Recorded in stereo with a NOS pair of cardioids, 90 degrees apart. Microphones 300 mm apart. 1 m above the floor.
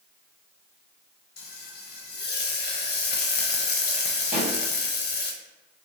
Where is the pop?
25° right, 0.8 m.